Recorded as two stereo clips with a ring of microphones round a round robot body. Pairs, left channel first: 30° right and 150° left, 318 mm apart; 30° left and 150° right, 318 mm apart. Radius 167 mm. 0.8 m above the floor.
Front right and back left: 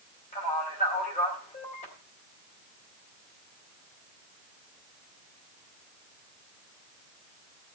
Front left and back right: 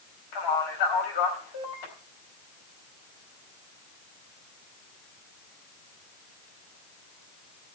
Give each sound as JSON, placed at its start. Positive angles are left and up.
{"t": 0.3, "sound": "a man speaking", "azimuth_deg": 40, "distance_m": 4.5}